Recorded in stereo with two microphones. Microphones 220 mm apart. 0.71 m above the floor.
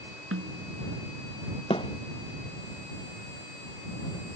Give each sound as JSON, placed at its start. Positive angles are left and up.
{"t": 0.3, "sound": "a snare drum", "side_deg": -75}
{"t": 1.7, "sound": "a thud", "side_deg": 25}